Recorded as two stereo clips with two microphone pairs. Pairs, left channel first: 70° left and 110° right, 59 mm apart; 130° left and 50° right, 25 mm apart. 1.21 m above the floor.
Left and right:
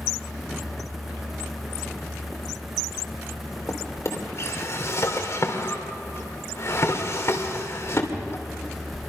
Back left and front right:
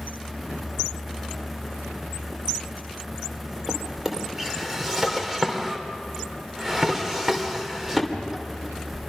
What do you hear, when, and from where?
3.7 s a drawer: 25° left, 2.5 m